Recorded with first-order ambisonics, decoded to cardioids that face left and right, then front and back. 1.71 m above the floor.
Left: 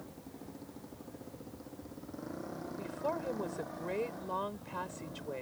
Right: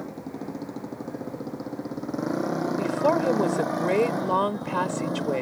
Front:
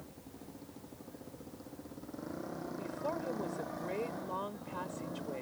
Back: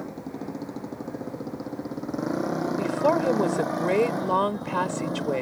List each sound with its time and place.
0.0 s a motorcycle: 140° right; by 5.4 s 130° right
2.8 s a woman speaking: 140° right